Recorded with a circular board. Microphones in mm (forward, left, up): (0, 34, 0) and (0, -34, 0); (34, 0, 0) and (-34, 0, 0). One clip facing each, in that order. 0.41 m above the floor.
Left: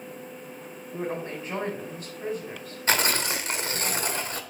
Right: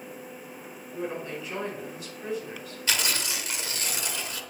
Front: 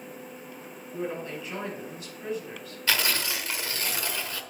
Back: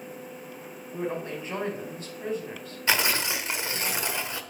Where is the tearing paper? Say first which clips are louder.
Left 5 dB, back 2 dB; 115° left, 0.8 m.